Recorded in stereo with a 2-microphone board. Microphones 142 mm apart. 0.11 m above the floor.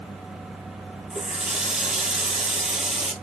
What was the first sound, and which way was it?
A running tap, 5° right (ahead or behind).